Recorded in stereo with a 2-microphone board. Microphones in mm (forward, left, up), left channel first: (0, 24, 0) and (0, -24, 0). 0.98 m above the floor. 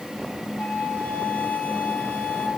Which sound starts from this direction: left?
A flute, at 0.6 s.